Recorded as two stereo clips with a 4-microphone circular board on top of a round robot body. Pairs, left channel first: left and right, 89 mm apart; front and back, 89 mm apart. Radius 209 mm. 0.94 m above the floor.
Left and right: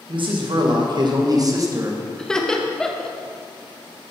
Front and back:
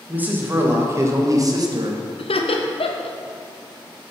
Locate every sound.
0.1 s a man speaking: 105° right, 2 m; by 2.0 s 150° right, 1.5 m
2.2 s laughter: 5° left, 1.2 m